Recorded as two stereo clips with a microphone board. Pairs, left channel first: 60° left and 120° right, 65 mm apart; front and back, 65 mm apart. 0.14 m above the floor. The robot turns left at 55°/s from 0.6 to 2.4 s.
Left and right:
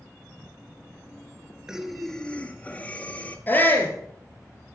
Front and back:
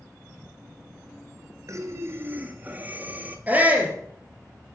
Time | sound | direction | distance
1.7 | breathing | 165° left | 1.1 m
3.5 | a shout | 115° left | 3.5 m